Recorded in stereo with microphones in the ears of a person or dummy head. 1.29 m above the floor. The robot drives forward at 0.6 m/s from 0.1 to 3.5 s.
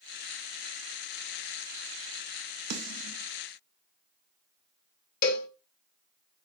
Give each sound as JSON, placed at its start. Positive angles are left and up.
{"t": 2.7, "sound": "a snare drum", "side_deg": -65, "distance_m": 0.8}
{"t": 5.2, "sound": "a cowbell", "side_deg": 40, "distance_m": 0.7}